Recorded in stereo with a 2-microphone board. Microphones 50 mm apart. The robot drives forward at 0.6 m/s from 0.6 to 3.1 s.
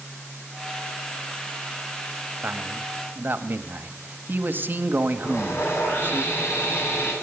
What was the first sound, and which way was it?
A man speaking, 40° right (ahead or behind).